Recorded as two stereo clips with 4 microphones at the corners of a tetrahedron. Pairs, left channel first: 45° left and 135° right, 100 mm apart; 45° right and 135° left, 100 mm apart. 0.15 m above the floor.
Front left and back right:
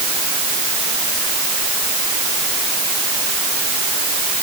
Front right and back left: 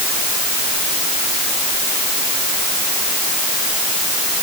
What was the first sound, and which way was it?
Only background noise.